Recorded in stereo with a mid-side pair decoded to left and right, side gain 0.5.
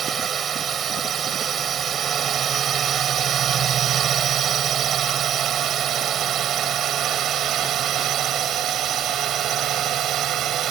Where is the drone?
50° right; by 10.7 s 65° right.